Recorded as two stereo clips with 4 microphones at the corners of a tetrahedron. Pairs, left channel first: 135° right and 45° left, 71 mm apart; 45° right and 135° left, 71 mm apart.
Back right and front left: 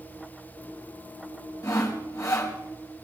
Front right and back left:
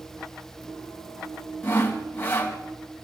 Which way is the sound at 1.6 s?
105° right.